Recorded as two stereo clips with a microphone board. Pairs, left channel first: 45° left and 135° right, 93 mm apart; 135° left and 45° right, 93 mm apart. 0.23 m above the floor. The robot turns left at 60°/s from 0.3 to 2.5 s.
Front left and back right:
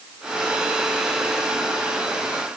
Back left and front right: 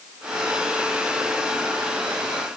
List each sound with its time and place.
Only background noise.